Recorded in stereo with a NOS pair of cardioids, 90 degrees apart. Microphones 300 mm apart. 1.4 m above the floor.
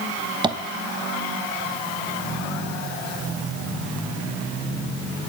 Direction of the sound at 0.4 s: 15° right.